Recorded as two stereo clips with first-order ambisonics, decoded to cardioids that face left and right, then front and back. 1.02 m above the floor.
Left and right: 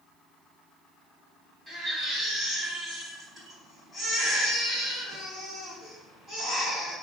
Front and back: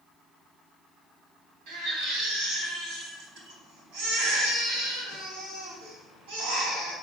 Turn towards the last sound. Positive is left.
turn(degrees=175)